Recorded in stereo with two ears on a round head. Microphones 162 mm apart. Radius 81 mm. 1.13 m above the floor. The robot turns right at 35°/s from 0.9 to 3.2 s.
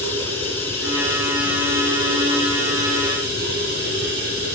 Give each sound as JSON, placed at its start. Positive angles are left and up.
{"t": 0.0, "sound": "running water", "azimuth_deg": 165, "distance_m": 3.0}